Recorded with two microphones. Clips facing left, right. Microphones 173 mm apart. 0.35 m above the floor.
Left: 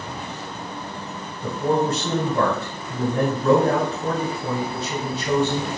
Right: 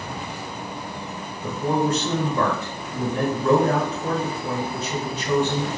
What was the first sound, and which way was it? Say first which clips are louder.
A man speaking: left 1 dB; 35° left (ahead or behind).